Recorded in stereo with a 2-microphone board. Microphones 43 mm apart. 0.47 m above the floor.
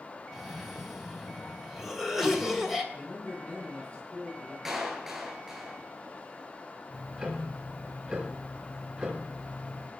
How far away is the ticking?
About 4.5 m.